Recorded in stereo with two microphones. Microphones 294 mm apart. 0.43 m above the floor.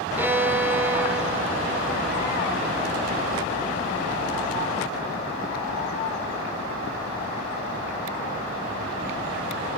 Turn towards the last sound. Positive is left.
turn(degrees=-5)  # may be behind; listen again after turning